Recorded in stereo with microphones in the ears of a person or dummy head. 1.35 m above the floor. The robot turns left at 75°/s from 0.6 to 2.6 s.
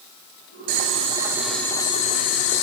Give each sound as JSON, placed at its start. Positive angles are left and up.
{"t": 0.7, "sound": "boiling", "azimuth_deg": -115, "distance_m": 1.7}